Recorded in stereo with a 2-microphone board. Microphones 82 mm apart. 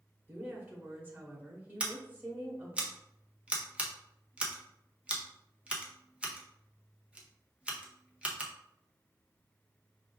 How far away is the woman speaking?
About 1.2 m.